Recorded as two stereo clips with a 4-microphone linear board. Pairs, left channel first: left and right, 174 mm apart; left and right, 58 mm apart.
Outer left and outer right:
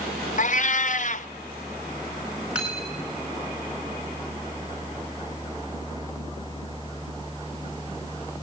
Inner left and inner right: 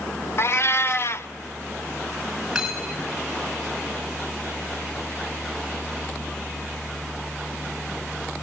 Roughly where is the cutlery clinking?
Centre.